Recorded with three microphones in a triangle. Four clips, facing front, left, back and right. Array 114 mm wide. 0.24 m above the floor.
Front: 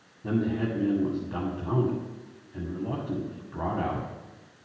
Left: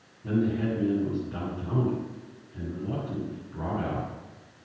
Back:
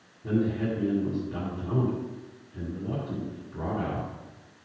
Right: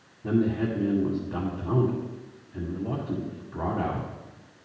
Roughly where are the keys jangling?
No keys jangling in this recording.